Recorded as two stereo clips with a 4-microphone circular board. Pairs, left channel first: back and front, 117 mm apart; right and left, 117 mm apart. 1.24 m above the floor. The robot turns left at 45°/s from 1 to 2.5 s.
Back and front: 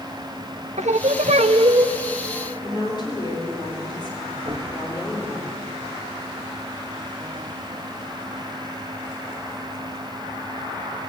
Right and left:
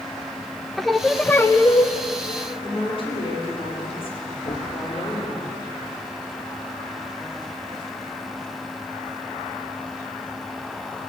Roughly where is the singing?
Ahead.